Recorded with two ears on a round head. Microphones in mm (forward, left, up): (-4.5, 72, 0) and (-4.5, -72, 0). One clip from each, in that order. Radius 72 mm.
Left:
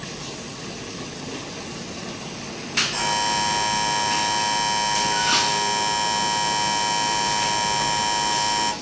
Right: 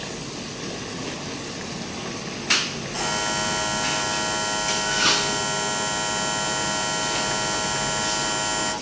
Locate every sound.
2.9 s a buzzer: 55° left (ahead or behind), 5 m